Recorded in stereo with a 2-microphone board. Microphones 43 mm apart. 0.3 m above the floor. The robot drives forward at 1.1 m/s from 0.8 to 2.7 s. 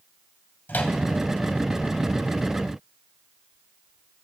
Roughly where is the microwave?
Left.